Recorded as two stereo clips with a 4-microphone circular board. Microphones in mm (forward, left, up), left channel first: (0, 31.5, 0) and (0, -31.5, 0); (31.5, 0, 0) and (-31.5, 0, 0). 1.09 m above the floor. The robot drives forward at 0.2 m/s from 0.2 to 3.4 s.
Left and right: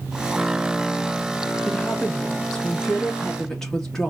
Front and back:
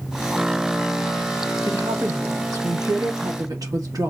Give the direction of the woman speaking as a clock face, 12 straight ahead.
6 o'clock.